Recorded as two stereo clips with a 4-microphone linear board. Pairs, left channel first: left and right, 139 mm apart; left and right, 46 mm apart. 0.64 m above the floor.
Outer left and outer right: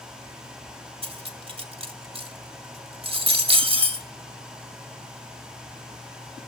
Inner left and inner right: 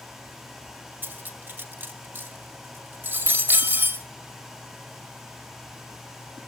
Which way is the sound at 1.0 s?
40° right (ahead or behind).